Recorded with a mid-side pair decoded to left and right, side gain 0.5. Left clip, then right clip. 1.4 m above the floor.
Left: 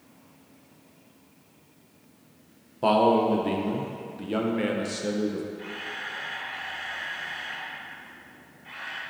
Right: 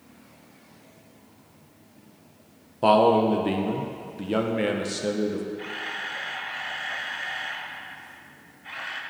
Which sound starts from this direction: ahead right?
A camera shutter, at 5.6 s.